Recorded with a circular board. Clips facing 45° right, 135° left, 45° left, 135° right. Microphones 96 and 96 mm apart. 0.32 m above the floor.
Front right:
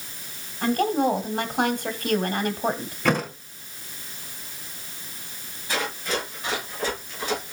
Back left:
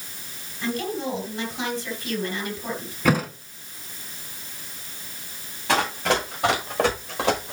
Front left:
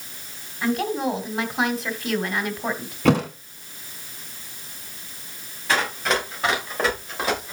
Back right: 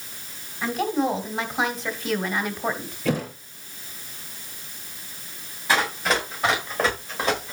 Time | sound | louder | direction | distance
0.6 | a woman speaking | front right 6 dB, even | 45° right | 2.5 m
3.0 | a thud | back left 2 dB, front left 6 dB | 50° left | 1.7 m
5.7 | running footsteps | back left 6 dB, even | 140° left | 7.5 m